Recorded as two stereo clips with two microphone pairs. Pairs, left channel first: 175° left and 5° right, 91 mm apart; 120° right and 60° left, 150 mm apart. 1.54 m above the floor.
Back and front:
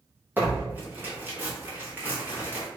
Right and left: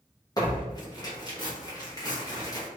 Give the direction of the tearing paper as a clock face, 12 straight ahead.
2 o'clock.